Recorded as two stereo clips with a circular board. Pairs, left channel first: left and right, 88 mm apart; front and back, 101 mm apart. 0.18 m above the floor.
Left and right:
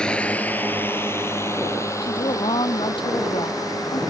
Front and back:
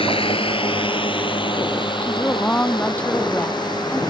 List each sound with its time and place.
0.0 s a drone: 10° left; by 4.1 s 45° left
2.0 s a woman speaking: 75° left